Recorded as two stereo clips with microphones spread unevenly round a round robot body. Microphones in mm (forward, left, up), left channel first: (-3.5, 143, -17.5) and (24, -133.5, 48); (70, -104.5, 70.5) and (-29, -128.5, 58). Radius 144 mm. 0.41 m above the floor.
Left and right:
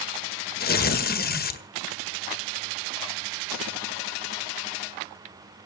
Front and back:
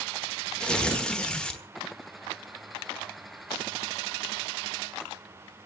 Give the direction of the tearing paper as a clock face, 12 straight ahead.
9 o'clock.